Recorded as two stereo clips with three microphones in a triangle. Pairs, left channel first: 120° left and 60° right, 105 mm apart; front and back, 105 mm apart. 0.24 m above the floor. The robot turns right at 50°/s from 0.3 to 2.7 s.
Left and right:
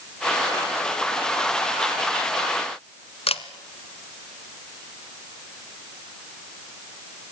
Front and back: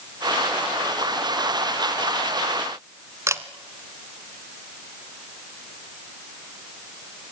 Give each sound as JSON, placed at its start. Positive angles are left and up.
{"t": 3.3, "sound": "a camera shutter", "azimuth_deg": 120, "distance_m": 1.2}